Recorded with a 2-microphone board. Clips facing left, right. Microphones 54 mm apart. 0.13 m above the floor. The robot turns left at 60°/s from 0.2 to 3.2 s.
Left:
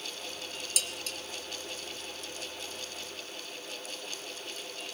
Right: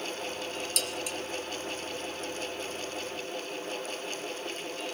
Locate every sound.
0.8 s dishes clattering: 5° left (ahead or behind), 1.9 m; by 1.2 s 20° right (ahead or behind), 1.9 m